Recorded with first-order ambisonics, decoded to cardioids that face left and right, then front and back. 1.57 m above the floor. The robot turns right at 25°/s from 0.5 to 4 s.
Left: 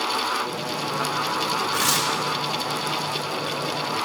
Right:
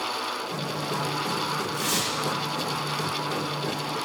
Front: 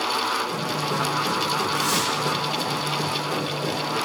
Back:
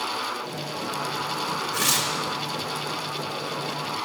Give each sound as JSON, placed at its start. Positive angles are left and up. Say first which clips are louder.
{"t": 1.7, "sound": "tearing paper", "louder": "left 6 dB, front 1 dB", "azimuth_deg": 140, "distance_m": 2.0}